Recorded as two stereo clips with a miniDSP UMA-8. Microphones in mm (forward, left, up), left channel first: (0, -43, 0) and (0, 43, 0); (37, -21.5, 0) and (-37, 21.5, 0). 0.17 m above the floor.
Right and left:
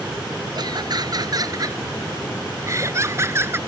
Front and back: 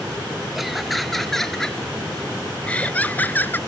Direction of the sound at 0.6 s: 65° left.